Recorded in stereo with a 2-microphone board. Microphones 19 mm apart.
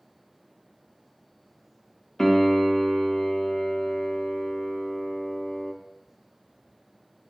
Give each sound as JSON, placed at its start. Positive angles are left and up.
{"t": 2.2, "sound": "a piano", "side_deg": 30, "distance_m": 0.8}